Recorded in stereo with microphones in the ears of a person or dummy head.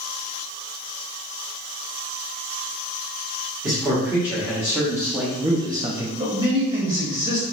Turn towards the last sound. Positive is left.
turn(degrees=-35)  # may be behind; listen again after turning